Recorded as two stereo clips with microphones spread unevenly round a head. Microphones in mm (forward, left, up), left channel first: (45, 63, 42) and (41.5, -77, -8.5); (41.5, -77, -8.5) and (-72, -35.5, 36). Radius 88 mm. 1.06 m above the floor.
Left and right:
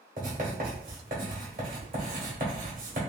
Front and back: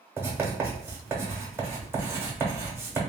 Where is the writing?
145° right, 1.2 m.